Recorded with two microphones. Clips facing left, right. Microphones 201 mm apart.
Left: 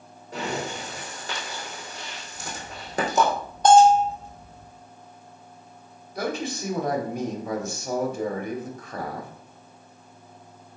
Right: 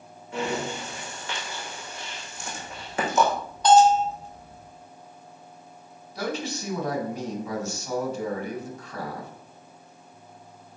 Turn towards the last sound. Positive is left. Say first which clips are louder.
# left 2 dB
turn(degrees=60)  # may be behind; listen again after turning